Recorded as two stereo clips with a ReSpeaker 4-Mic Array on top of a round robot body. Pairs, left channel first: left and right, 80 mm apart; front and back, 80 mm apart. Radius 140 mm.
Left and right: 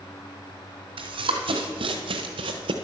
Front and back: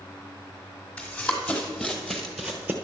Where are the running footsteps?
70° right, 1.4 m; by 2.7 s 110° right, 0.6 m.